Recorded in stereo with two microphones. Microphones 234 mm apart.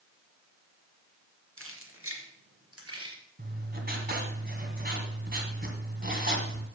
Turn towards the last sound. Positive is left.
turn(degrees=-40)  # may be behind; listen again after turning